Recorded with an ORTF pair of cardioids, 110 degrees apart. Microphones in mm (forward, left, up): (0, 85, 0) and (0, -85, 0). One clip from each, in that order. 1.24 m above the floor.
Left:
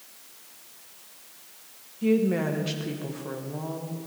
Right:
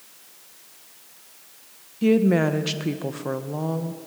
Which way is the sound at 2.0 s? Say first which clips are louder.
Right 5 dB; 40° right.